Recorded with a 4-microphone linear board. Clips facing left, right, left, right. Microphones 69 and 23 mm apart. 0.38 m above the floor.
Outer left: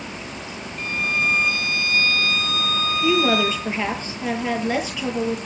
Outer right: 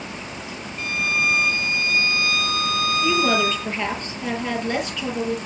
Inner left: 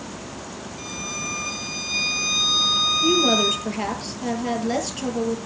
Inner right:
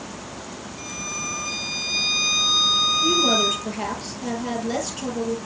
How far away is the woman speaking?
About 7.5 m.